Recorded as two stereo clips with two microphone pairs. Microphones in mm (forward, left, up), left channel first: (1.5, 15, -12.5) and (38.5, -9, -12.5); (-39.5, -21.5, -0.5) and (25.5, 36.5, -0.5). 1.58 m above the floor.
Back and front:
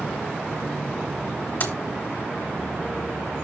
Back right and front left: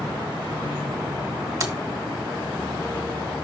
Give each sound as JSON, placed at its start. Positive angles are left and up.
{"t": 1.6, "sound": "keys jangling", "azimuth_deg": 95, "distance_m": 1.7}